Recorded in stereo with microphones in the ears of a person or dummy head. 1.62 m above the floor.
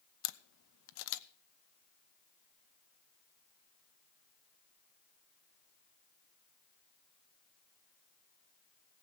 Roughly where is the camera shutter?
Left.